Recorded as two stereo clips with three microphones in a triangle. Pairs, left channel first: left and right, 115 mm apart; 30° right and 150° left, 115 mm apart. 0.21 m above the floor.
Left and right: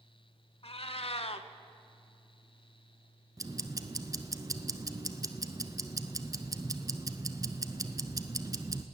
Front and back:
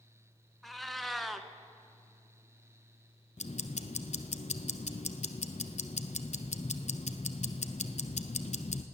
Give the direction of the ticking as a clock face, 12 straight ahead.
1 o'clock.